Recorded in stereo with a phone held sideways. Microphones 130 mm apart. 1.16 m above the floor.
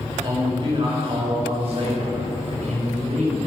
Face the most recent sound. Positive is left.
turn(degrees=-70)  # may be behind; listen again after turning